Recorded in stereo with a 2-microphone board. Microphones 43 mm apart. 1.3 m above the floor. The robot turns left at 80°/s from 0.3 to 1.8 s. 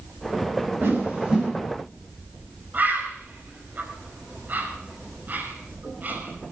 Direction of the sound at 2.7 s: 45° right (ahead or behind).